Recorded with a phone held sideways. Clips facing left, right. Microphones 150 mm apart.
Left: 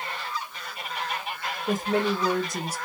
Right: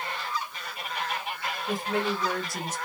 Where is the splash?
I don't hear a splash.